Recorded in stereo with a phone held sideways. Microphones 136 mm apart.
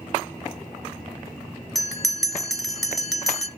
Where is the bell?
Centre (ahead or behind), 0.9 m.